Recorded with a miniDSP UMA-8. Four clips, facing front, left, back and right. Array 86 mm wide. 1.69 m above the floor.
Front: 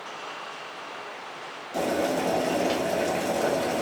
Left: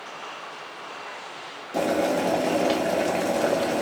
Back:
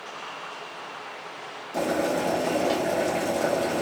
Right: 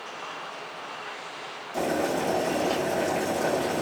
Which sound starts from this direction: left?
Boiling, at 1.7 s.